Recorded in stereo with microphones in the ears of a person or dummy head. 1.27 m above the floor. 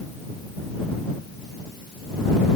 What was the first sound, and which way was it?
Only background noise.